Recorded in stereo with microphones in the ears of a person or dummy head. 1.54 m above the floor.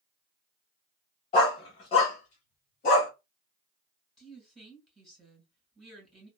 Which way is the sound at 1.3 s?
20° left (ahead or behind).